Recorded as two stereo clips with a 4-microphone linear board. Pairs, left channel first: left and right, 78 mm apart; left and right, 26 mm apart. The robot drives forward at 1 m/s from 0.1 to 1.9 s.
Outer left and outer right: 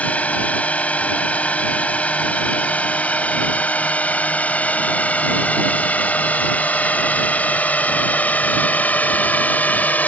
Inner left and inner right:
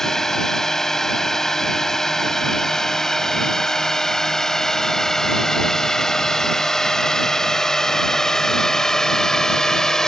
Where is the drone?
20° left (ahead or behind).